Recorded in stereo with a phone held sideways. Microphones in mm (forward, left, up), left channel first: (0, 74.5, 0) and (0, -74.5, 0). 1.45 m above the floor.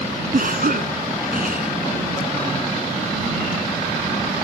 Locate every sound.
0.3 s a cough: 70° right (ahead or behind)